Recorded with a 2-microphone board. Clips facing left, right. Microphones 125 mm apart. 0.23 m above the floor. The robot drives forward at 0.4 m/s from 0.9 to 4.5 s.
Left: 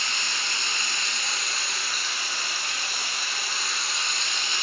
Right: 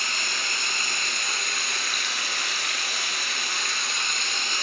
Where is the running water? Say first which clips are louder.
Right 1 dB; 55° right (ahead or behind), 1.2 m.